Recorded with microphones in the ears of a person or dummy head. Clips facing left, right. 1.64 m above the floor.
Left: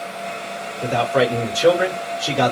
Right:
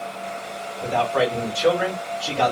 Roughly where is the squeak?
I don't hear a squeak.